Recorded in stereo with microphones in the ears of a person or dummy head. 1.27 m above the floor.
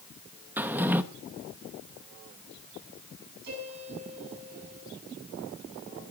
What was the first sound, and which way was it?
A drawer, 10° right (ahead or behind).